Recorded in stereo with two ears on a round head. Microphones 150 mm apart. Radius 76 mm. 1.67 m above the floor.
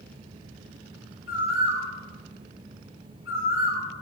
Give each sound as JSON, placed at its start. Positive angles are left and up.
{"t": 1.3, "sound": "a bird", "side_deg": 75, "distance_m": 2.5}